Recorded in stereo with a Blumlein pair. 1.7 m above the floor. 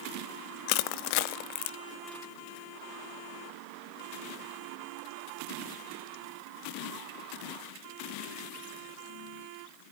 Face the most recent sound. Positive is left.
turn(degrees=45)